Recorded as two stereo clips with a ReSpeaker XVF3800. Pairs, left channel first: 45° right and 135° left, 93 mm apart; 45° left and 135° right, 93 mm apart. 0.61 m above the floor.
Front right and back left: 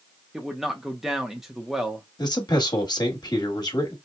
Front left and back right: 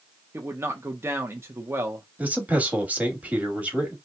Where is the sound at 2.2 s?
65° right, 1.2 m.